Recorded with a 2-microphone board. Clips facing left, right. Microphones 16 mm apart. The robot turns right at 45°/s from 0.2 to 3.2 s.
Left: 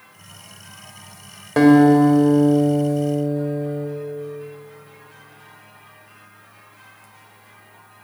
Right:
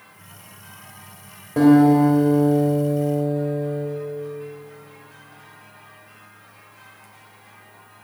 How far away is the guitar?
About 1.6 m.